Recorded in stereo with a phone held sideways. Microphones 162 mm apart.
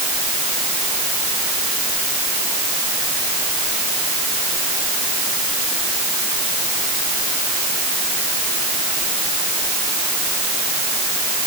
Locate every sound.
Only background noise.